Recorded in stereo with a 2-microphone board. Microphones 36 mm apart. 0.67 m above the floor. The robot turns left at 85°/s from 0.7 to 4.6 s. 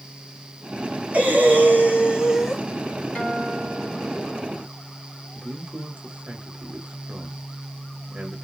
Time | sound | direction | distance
1.1 | breathing | 75° right | 2 m
3.1 | a guitar | 130° left | 1.2 m
5.3 | a man speaking | 50° right (ahead or behind) | 1.5 m